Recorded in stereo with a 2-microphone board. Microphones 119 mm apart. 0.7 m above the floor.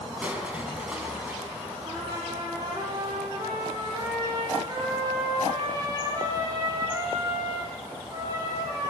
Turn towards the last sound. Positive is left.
turn(degrees=-30)  # may be behind; listen again after turning